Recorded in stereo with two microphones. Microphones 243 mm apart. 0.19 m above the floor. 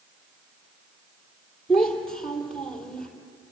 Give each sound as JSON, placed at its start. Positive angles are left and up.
{"t": 1.7, "sound": "a child speaking", "side_deg": 5, "distance_m": 4.0}